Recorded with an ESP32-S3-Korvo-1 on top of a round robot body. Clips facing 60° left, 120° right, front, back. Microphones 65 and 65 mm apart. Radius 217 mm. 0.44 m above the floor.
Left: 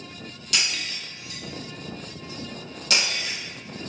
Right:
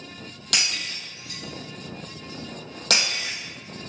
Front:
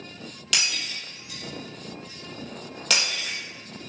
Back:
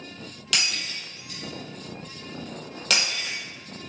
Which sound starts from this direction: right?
Breaking glass, at 0.5 s.